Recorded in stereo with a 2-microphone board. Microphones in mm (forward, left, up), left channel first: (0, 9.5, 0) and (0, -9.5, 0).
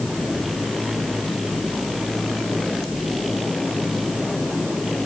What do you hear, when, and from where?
Only background noise.